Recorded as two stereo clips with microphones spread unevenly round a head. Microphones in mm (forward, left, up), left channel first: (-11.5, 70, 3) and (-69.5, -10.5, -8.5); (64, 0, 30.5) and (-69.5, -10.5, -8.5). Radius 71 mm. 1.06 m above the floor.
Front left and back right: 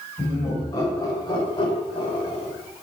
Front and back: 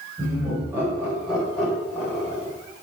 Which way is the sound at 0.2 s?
115° left.